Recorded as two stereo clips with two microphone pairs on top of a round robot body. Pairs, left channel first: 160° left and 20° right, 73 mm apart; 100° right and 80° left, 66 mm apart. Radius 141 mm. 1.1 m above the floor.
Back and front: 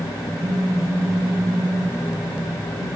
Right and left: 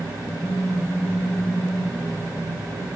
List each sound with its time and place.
0.4 s a phone buzzing: 60° right, 1.5 m